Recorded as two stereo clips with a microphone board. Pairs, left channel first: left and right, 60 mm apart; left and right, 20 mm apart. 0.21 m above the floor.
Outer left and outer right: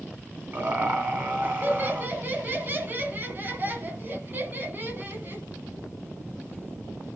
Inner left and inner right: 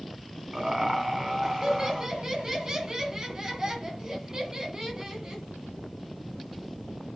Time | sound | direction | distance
0.5 | laughter | 35° right (ahead or behind) | 1.6 m